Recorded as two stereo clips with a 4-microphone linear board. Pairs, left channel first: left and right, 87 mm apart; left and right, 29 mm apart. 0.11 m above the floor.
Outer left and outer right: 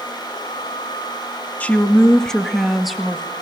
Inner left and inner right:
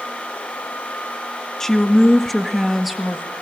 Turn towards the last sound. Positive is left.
turn(degrees=-5)  # may be behind; listen again after turning